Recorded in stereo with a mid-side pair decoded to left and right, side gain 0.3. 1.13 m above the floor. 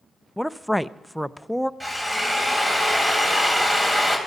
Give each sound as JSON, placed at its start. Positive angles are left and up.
{"t": 0.4, "sound": "a woman speaking", "azimuth_deg": 0, "distance_m": 0.5}
{"t": 1.8, "sound": "a drill", "azimuth_deg": -20, "distance_m": 4.0}